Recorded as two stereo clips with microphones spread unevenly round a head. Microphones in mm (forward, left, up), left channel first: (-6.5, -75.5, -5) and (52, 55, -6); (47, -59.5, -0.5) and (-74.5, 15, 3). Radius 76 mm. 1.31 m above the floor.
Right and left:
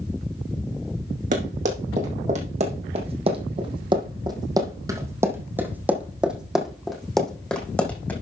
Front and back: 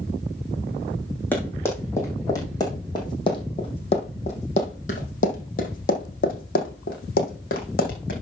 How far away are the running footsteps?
About 3 m.